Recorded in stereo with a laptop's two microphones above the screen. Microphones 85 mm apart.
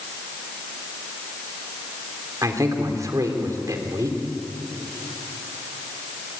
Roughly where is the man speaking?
Right.